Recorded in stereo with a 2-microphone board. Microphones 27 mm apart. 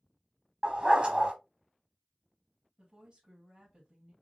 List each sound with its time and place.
0.6 s a dog barking: 40° right (ahead or behind), 0.9 m
2.8 s a woman speaking: 30° right (ahead or behind), 2.5 m